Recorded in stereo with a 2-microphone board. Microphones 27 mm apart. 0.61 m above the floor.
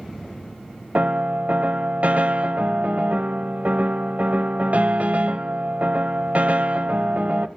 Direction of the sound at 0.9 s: 70° right (ahead or behind).